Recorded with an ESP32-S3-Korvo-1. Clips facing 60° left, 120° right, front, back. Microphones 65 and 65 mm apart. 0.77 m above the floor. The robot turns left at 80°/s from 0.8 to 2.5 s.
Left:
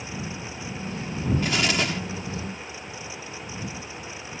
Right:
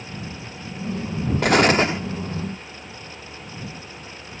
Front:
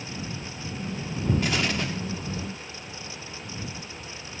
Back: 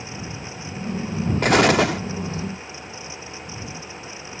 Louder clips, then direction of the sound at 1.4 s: Right 12 dB, back 11 dB; 145° right.